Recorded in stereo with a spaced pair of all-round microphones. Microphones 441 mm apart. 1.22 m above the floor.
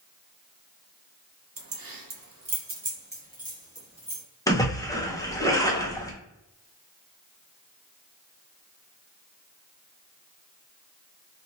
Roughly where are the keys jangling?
Right.